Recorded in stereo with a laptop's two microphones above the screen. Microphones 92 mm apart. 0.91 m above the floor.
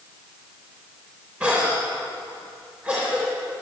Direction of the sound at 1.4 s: 15° right (ahead or behind).